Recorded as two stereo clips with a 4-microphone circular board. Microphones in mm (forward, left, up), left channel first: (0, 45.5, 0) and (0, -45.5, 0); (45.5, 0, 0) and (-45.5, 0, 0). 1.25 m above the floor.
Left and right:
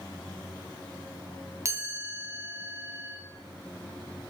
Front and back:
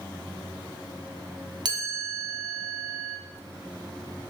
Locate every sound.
1.6 s a chime: 145° right, 0.8 m